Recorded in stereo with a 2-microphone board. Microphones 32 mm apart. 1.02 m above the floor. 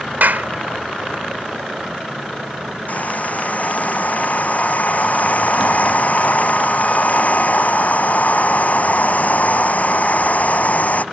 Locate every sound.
0.2 s a clap: 70° right (ahead or behind)
2.9 s a hair dryer: 50° left (ahead or behind)